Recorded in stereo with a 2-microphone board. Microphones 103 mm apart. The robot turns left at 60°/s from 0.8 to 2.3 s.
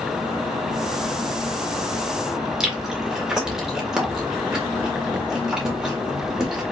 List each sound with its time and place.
2.6 s chewing: 5° right (ahead or behind), 1.7 m